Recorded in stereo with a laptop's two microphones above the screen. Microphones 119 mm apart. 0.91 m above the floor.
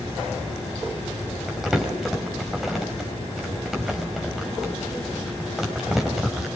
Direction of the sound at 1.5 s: Centre (ahead or behind).